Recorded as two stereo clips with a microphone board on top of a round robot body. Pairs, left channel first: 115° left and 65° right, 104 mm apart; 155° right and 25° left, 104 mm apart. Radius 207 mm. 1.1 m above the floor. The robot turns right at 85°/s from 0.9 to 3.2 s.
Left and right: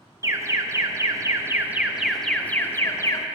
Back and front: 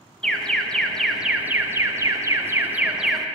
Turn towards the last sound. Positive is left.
turn(degrees=115)